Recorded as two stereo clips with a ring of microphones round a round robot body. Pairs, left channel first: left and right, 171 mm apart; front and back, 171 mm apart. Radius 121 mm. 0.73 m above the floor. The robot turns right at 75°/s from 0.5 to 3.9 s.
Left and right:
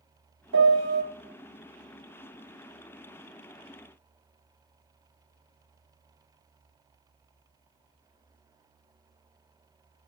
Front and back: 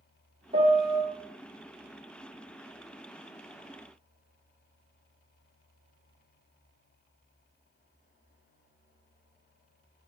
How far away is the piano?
About 1.1 m.